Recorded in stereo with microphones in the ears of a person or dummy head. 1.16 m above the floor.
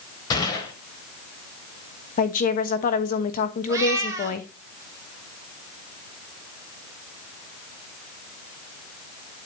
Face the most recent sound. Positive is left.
turn(degrees=-15)  # may be behind; listen again after turning